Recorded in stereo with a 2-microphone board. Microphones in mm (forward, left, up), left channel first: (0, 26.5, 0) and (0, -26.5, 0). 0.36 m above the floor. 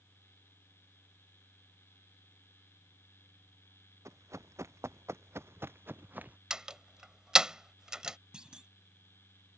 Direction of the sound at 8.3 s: 15° right (ahead or behind).